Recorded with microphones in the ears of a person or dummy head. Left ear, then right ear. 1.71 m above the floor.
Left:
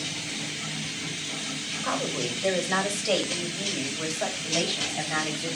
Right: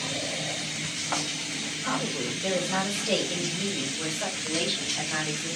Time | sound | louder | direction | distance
1.8 | a woman speaking | left 2 dB | 35° left (ahead or behind) | 1.8 m